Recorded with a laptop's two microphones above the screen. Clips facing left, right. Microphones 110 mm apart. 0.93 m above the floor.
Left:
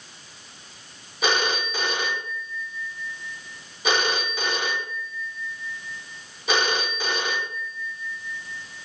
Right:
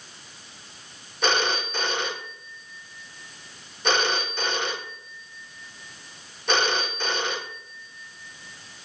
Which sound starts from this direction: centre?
A phone ringing, at 1.2 s.